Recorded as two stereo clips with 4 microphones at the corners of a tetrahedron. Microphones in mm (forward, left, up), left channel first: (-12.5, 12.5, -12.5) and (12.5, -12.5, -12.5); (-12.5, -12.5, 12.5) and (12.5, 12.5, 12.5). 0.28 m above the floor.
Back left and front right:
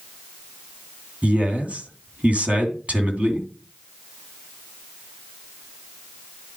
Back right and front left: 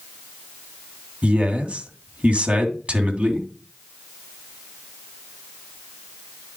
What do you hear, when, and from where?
1.2 s a man speaking: straight ahead, 2.5 m